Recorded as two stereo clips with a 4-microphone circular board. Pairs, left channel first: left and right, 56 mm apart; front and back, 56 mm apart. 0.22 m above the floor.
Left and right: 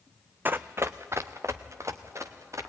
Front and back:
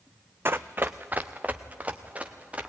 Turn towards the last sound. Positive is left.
turn(degrees=-115)